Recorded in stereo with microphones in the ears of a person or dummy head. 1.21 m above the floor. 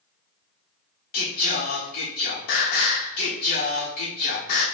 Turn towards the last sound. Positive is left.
turn(degrees=55)  # may be behind; listen again after turning